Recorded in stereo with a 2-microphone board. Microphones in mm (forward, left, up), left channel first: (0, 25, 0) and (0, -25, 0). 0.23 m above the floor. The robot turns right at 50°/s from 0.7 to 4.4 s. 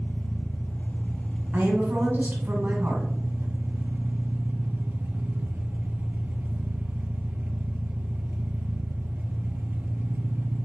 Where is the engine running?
125° left, 0.8 m; by 10.7 s 50° right, 0.8 m.